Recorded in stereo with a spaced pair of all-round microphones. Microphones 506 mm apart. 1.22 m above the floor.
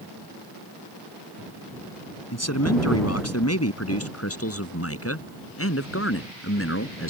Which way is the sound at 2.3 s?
30° left (ahead or behind).